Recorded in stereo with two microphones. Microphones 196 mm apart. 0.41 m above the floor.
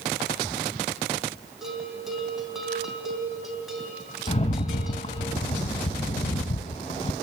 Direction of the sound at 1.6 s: Centre (ahead or behind).